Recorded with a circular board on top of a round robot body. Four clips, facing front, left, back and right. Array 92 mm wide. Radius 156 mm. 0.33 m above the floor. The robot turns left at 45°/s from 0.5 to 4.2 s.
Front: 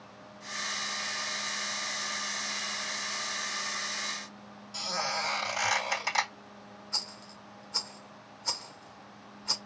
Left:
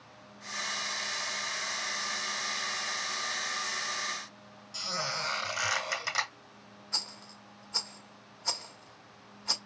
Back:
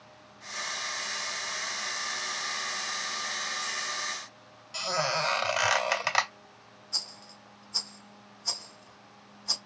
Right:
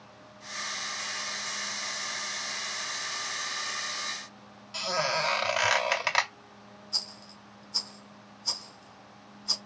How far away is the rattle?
About 1.4 m.